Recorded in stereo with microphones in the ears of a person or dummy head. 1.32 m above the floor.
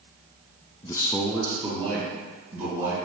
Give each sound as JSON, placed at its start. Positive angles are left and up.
{"t": 0.8, "sound": "a man speaking", "side_deg": 20, "distance_m": 0.5}